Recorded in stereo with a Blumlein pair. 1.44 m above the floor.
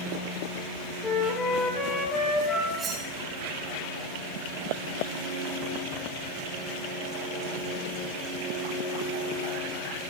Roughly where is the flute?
Ahead.